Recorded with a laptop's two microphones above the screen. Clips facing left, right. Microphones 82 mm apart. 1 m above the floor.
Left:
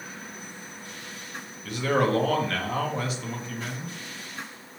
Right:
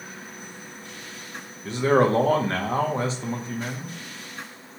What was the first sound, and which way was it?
A man speaking, 30° right (ahead or behind).